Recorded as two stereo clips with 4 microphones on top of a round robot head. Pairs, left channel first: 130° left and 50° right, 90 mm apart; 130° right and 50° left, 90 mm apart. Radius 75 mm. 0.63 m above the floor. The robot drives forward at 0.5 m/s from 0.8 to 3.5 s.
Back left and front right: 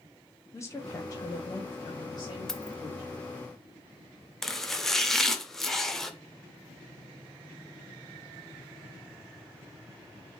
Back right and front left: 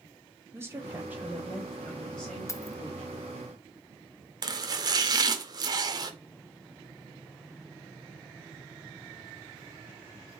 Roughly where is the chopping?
Ahead left.